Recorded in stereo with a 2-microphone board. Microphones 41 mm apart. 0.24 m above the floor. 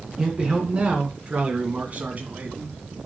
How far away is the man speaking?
About 2.5 m.